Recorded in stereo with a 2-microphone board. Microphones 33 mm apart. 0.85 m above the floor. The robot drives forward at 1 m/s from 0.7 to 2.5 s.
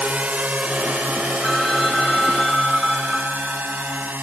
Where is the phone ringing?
10° left (ahead or behind).